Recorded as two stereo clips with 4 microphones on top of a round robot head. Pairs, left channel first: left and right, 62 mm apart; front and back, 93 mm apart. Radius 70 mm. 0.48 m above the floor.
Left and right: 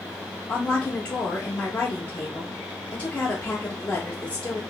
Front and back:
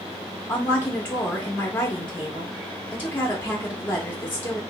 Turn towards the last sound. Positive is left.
turn(degrees=40)